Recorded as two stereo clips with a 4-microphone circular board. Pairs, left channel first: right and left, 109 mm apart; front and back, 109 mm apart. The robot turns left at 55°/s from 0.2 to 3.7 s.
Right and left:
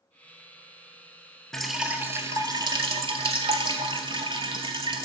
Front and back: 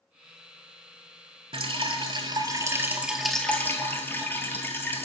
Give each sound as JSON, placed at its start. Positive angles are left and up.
{"t": 1.5, "sound": "dripping", "azimuth_deg": -175, "distance_m": 0.6}